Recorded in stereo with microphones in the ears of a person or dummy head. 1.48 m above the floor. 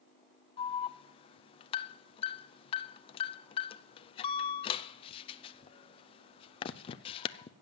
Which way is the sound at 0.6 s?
30° left (ahead or behind).